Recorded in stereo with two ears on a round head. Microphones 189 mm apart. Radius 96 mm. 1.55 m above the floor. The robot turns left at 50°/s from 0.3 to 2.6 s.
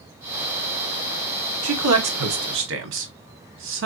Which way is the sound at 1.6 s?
65° right (ahead or behind).